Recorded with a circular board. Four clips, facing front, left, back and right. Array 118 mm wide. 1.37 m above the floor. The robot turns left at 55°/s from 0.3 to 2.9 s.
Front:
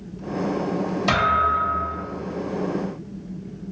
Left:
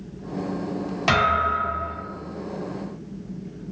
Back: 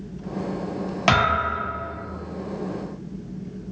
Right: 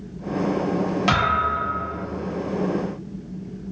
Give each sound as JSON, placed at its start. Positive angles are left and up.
{"t": 1.1, "sound": "a thud", "azimuth_deg": -175, "distance_m": 1.2}